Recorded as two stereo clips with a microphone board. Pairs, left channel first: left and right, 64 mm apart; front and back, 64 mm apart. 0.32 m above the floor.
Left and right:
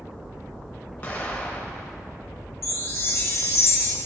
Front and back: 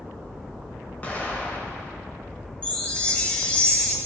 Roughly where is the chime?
Ahead left.